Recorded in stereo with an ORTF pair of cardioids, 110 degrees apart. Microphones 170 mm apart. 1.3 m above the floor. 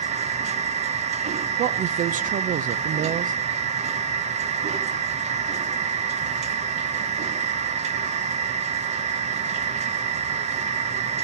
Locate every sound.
0.0 s a machine running: 40° right, 1.2 m
1.6 s a woman speaking: 50° right, 0.8 m